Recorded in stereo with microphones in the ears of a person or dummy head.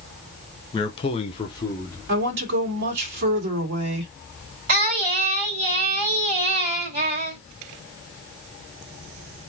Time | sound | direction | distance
0.7 | a man speaking | 25° left (ahead or behind) | 0.9 m
2.1 | a woman speaking | 60° right (ahead or behind) | 2 m
4.7 | singing | 50° right (ahead or behind) | 2 m